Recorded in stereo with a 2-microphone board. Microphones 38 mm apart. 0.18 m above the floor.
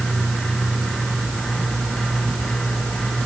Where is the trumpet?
I don't hear a trumpet.